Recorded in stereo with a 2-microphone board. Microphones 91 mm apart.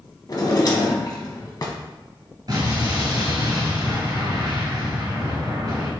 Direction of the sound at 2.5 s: 50° right (ahead or behind).